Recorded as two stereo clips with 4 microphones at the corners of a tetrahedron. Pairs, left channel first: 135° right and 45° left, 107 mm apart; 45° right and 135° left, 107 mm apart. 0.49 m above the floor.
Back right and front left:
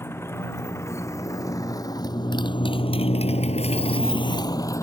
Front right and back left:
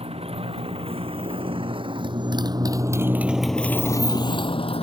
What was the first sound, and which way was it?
A motorcycle, 160° left.